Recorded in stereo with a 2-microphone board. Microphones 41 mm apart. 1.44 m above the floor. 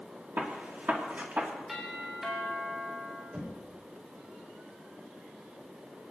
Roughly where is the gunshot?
Right.